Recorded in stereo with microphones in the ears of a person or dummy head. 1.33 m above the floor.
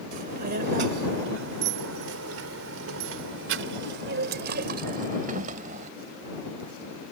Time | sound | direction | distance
0.1 | a child speaking | 50° right (ahead or behind) | ?